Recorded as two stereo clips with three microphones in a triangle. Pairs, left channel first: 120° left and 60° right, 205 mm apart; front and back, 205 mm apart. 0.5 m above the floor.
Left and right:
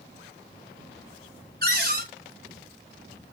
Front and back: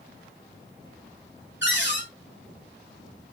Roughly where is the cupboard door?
Ahead.